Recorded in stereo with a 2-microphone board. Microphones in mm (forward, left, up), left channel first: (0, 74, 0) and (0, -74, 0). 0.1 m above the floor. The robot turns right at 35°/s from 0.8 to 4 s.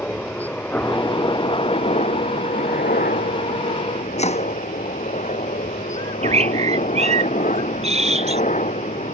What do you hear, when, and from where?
0.0 s a helicopter: 10° left; by 9.2 s 125° left
4.2 s chopping: 45° left (ahead or behind)
6.0 s a bird: 45° right (ahead or behind)